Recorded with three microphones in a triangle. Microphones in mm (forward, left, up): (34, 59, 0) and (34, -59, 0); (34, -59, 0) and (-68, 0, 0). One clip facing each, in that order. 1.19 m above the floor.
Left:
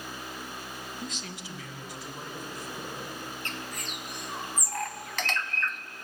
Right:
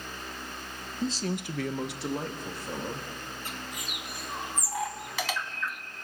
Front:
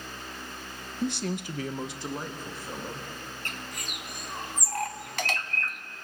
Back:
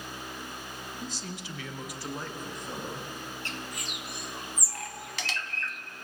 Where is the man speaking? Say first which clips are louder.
Right 9 dB, front 13 dB; 25° right, 1.1 m; by 3.1 s 120° right, 3 m.